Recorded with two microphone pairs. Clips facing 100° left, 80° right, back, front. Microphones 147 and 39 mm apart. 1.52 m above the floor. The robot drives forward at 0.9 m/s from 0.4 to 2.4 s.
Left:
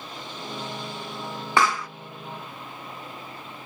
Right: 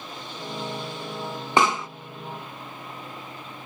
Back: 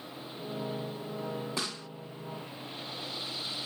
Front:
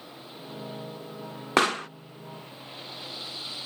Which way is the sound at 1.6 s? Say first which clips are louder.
Right 1 dB, front 13 dB; 15° right.